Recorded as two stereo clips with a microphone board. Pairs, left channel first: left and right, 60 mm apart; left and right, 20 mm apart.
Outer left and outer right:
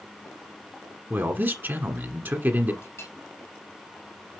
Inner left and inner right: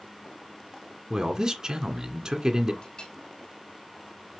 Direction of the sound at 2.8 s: 45° left (ahead or behind).